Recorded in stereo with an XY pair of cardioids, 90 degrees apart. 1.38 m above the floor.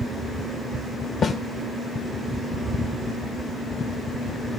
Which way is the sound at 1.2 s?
50° left.